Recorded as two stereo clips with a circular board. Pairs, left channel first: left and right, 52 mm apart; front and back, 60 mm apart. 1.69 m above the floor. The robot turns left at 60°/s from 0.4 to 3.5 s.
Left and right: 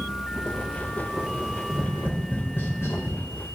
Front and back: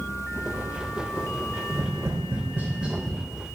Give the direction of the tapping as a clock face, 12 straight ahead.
6 o'clock.